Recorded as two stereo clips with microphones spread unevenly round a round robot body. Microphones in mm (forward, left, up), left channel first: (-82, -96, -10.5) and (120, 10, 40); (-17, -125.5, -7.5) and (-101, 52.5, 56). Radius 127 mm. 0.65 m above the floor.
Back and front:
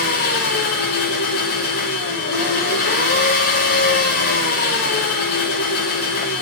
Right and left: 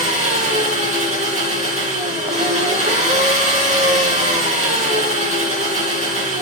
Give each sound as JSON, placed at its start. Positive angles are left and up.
{"t": 0.0, "sound": "an engine running", "azimuth_deg": 170, "distance_m": 8.5}